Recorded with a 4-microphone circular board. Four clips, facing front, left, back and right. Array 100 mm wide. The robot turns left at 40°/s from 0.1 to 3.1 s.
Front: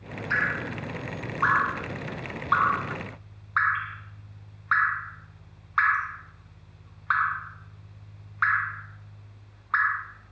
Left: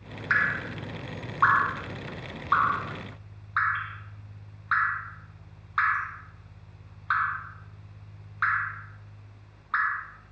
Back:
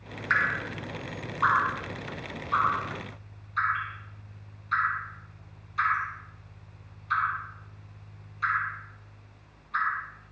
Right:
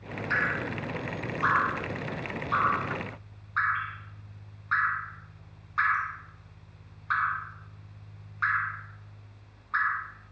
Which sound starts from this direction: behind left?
Dripping, at 0.3 s.